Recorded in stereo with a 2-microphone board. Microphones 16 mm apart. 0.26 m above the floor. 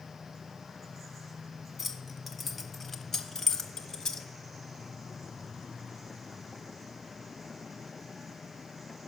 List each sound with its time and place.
1.8 s keys jangling: 5° right (ahead or behind), 1.4 m; by 4.3 s 40° left (ahead or behind), 1.2 m